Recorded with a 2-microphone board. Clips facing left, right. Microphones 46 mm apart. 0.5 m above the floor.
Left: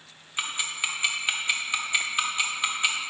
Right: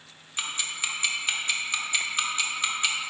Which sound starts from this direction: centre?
Ticking, at 0.4 s.